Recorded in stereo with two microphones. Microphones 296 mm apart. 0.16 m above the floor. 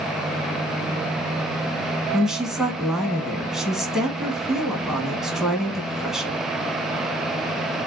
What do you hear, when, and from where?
2.1 s a woman speaking: centre (ahead or behind), 1.1 m